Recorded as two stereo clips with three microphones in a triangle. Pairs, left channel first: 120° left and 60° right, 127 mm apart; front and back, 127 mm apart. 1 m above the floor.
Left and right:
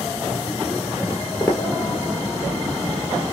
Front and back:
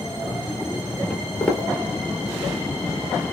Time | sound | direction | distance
1.1 | footsteps | 70° left | 1.2 m